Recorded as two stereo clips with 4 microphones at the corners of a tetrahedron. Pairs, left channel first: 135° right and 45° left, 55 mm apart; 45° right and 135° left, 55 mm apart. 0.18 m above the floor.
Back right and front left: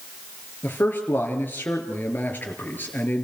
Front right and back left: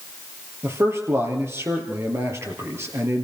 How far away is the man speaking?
About 3.5 m.